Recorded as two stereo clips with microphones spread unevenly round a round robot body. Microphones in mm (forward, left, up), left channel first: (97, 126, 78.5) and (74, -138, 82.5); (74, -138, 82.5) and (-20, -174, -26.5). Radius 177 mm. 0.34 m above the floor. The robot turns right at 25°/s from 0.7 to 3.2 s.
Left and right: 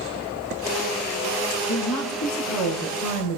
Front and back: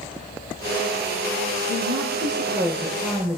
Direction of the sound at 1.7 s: 85° left.